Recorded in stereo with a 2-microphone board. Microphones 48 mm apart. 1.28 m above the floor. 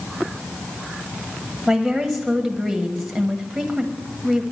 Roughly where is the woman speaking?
Centre.